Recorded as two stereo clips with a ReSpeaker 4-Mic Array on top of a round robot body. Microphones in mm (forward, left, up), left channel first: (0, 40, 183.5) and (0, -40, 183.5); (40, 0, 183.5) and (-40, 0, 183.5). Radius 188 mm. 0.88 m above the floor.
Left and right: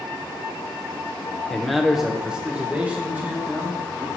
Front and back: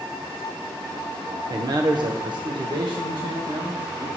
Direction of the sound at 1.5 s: 175° left.